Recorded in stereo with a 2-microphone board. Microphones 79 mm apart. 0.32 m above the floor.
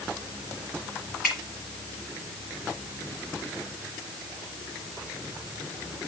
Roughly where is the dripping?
Centre.